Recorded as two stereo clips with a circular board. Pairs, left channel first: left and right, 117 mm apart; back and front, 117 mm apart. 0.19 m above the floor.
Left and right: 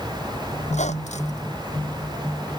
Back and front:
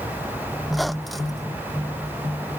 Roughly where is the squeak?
Left.